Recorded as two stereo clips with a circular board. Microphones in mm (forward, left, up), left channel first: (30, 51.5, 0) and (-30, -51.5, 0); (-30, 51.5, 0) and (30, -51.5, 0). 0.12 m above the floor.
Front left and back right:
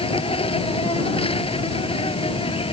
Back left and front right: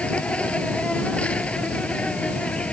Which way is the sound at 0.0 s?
40° left.